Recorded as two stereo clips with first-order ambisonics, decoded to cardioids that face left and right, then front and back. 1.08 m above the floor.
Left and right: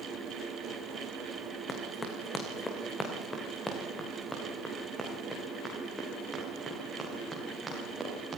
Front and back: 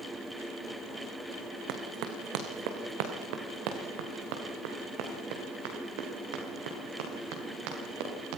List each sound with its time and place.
1.7 s running footsteps: 160° left, 3.5 m; by 8.4 s 175° right, 9 m